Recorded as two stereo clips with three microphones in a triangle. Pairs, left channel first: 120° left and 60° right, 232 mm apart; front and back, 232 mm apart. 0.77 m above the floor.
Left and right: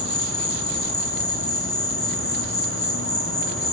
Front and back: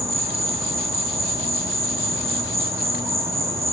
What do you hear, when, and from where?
0.0 s an insect: 100° left, 0.7 m